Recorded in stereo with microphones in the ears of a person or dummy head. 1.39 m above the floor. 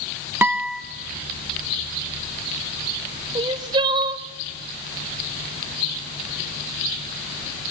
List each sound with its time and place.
0.4 s a guitar: 10° right (ahead or behind), 1.2 m
3.4 s crying: 25° right (ahead or behind), 1.0 m